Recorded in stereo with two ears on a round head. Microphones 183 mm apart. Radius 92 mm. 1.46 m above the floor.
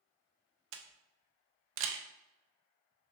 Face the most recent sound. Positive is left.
turn(degrees=-70)  # may be behind; listen again after turning